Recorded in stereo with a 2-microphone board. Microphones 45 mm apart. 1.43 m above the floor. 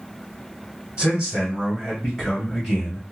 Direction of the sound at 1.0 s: 30° right (ahead or behind).